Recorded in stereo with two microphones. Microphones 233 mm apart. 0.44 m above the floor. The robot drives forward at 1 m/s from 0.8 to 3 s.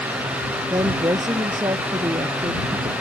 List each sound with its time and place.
0.7 s a woman speaking: 15° right (ahead or behind); by 2.9 s 20° right (ahead or behind)